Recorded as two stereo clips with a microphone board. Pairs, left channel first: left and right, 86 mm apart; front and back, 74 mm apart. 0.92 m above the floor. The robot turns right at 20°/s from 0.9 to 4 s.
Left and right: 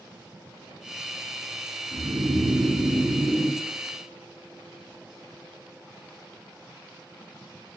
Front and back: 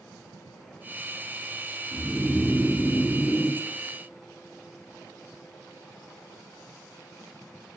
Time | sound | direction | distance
1.9 | snoring | 90° right | 1.8 m